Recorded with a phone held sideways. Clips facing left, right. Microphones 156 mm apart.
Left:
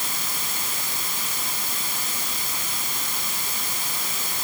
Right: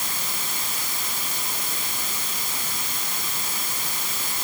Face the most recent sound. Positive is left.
No sound to turn to.